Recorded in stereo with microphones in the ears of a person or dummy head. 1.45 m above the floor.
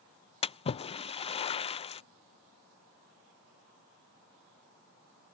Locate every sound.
0.4 s a splash: 30° left (ahead or behind)